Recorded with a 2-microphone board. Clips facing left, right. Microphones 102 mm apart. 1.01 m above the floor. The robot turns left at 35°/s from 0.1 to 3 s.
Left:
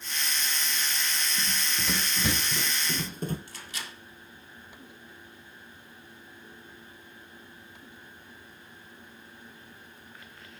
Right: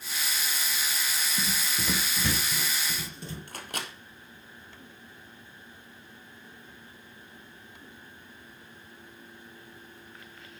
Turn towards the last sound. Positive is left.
turn(degrees=-55)  # may be behind; listen again after turning